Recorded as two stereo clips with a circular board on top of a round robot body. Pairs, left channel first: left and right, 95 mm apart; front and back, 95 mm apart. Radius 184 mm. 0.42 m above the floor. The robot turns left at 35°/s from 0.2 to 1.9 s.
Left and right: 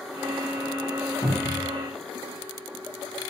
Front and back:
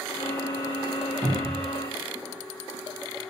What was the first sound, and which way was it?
A cupboard door, 130° left.